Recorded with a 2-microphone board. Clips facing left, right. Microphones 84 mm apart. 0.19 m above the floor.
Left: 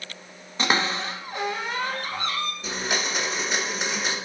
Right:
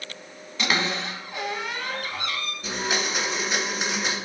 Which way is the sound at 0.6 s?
35° left (ahead or behind).